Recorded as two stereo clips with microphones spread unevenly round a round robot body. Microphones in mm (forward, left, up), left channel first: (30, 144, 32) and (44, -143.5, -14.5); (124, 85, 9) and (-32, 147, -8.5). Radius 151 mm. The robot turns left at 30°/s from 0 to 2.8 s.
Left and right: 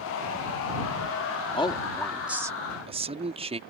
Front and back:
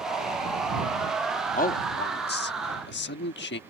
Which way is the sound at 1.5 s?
20° left.